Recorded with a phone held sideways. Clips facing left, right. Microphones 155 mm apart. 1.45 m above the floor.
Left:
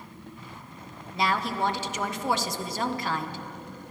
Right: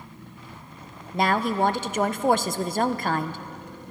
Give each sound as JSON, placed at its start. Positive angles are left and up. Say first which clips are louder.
{"t": 1.1, "sound": "a woman speaking", "louder": "right 5 dB", "side_deg": -50, "distance_m": 0.6}